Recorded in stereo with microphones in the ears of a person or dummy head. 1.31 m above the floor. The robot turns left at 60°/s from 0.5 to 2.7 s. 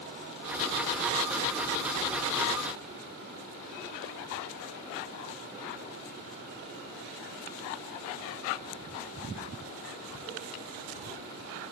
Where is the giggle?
I don't hear a giggle.